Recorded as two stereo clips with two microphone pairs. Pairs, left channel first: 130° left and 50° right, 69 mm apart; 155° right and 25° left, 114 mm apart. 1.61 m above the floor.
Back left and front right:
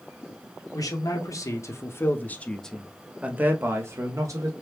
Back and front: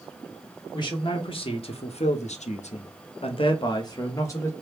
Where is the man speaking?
160° left, 1.3 m; by 4.5 s 90° right, 1.1 m.